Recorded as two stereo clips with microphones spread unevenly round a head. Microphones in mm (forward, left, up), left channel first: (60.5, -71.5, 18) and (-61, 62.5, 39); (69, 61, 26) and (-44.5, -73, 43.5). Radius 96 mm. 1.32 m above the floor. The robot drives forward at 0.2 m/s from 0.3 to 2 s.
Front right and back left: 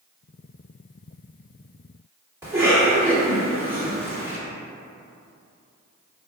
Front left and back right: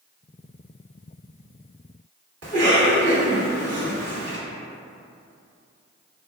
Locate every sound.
2.4 s a cough: 150° right, 1.7 m